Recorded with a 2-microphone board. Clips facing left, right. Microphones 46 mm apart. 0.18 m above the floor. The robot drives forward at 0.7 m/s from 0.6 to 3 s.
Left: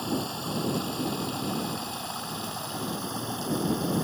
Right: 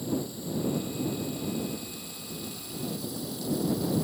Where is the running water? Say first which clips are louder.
Left 2 dB; 70° left (ahead or behind); by 4.0 s 60° left (ahead or behind).